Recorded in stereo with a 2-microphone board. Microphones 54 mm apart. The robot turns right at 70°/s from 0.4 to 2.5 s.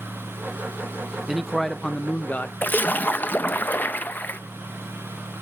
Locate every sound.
1.3 s a man speaking: 10° right, 0.8 m; by 2.5 s 75° left, 0.8 m
2.6 s a splash: 35° left (ahead or behind), 0.7 m